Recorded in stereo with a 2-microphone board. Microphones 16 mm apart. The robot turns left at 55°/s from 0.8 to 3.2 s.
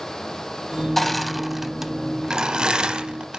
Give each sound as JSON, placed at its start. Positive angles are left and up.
{"t": 1.0, "sound": "crushing", "side_deg": 15, "distance_m": 0.7}